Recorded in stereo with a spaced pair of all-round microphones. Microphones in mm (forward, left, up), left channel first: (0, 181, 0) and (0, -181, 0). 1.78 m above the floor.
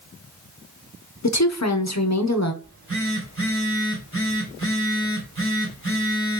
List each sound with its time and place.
1.2 s a woman speaking: 45° left (ahead or behind), 0.8 m
2.6 s a phone buzzing: 35° right (ahead or behind), 2.5 m